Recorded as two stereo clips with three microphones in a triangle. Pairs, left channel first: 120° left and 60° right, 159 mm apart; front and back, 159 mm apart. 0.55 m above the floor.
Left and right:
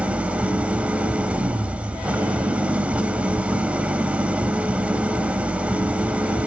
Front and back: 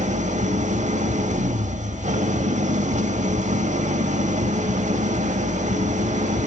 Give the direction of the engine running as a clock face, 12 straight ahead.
5 o'clock.